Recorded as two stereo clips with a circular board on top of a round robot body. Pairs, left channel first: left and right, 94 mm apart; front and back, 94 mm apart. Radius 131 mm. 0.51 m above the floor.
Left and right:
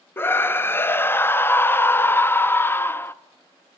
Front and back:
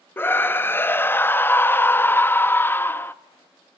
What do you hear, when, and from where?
0.2 s a scream: 45° left, 0.8 m